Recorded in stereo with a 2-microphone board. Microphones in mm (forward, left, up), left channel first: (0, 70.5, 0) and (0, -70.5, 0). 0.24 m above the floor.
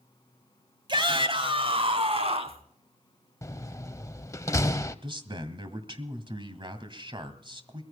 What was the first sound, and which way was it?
A shout, 35° right (ahead or behind).